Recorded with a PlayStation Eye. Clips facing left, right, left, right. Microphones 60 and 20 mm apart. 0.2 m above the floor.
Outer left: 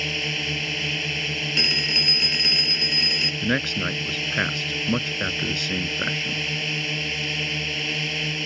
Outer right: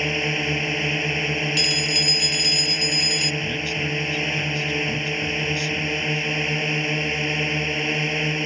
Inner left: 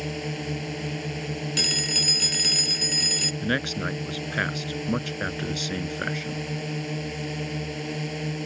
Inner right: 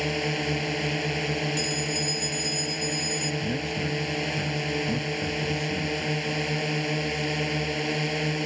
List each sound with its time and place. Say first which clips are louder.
0.0 s a drone: outer right 4 dB, inner right 5 dB; 25° right (ahead or behind)
1.6 s a phone ringing: outer right 1 dB, inner left 5 dB; 40° left (ahead or behind)
3.4 s a man speaking: outer left 2 dB, inner left 2 dB; 60° left (ahead or behind)